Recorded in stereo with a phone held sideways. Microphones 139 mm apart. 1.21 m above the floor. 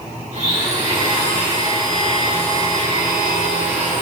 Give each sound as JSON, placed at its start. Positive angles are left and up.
{"t": 0.3, "sound": "a blender", "side_deg": -55, "distance_m": 2.5}